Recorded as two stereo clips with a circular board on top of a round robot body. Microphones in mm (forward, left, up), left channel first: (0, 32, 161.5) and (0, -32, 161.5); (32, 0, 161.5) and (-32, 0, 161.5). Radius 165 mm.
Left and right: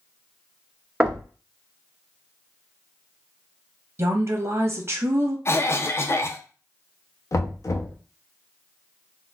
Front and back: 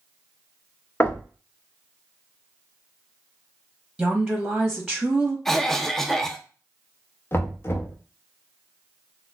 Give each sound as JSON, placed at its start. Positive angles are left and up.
{"t": 1.0, "sound": "knocking", "azimuth_deg": -20, "distance_m": 0.9}
{"t": 4.0, "sound": "a woman speaking", "azimuth_deg": -95, "distance_m": 1.1}
{"t": 5.5, "sound": "a cough", "azimuth_deg": 85, "distance_m": 0.5}
{"t": 7.3, "sound": "knocking", "azimuth_deg": 55, "distance_m": 0.7}